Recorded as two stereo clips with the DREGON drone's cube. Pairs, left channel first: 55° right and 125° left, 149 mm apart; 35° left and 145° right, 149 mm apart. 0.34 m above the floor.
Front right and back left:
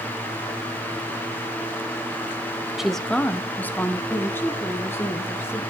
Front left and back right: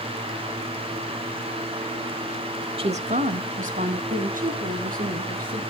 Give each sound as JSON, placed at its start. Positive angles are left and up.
{"t": 2.8, "sound": "a woman speaking", "azimuth_deg": -150, "distance_m": 0.9}